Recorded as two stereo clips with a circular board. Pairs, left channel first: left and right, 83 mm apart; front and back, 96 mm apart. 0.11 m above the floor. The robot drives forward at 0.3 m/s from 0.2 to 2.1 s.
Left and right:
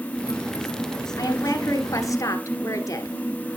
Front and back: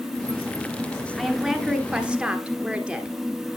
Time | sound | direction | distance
1.2 | a woman speaking | 95° left | 1.6 m